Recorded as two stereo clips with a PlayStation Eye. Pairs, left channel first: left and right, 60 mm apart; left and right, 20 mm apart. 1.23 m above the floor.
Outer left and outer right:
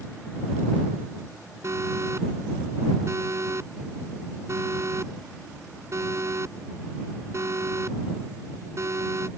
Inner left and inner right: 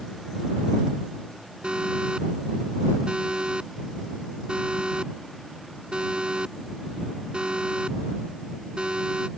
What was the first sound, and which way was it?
An alarm, 50° right (ahead or behind).